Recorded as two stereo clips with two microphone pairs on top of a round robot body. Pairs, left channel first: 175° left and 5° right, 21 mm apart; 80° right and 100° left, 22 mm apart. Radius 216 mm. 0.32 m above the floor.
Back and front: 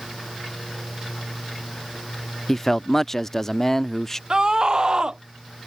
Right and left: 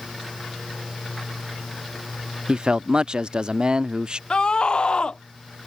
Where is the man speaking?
100° left.